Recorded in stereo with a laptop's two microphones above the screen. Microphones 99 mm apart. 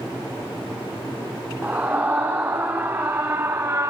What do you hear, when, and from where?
1.6 s a scream: 15° right (ahead or behind), 2.5 m; by 3.9 s 30° right (ahead or behind), 1.4 m